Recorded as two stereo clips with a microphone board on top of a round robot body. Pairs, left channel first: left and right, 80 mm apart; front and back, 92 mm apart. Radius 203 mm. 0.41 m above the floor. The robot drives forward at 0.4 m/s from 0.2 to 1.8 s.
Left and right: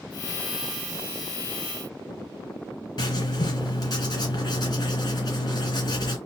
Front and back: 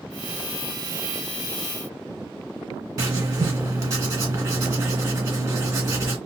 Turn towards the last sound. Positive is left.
turn(degrees=130)